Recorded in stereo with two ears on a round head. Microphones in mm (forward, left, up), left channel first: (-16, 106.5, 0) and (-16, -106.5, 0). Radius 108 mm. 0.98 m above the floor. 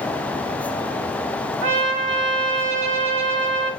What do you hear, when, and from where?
1.6 s a trumpet: 55° right (ahead or behind), 1.4 m